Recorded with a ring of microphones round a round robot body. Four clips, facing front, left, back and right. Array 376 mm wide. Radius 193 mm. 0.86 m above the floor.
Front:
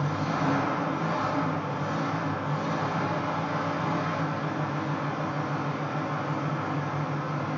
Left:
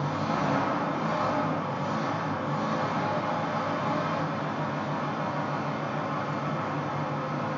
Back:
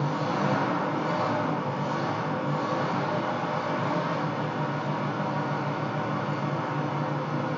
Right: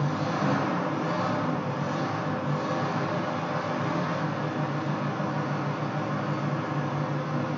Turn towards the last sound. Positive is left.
turn(degrees=-155)